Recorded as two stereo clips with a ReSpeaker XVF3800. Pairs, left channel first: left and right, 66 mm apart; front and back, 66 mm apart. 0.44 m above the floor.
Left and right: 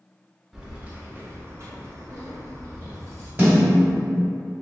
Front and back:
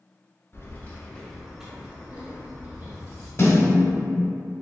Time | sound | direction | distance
0.5 | keys jangling | 15° right | 0.7 m
3.4 | a snare drum | 35° right | 1.6 m